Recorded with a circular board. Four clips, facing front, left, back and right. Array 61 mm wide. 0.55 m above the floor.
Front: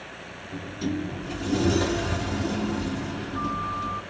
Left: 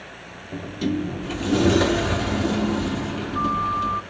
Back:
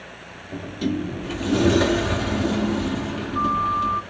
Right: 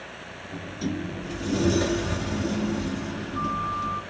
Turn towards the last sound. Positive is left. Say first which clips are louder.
# left 6 dB, back 4 dB
turn(degrees=130)